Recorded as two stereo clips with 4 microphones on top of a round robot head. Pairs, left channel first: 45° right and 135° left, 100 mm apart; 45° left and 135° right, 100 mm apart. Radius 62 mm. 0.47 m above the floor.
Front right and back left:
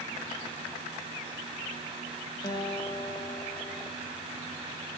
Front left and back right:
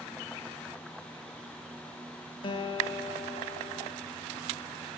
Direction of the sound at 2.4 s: 10° left.